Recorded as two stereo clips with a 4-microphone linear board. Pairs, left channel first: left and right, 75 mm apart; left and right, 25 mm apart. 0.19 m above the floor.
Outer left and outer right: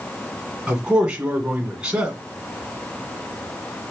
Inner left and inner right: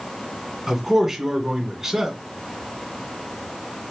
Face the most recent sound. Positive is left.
turn(degrees=-10)  # may be behind; listen again after turning